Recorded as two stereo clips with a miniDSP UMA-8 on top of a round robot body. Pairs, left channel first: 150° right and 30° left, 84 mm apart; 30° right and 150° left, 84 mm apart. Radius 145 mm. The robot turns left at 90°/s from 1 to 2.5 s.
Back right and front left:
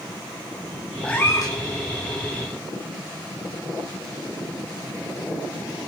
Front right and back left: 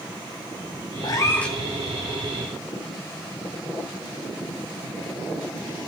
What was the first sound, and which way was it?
A cat meowing, 70° right.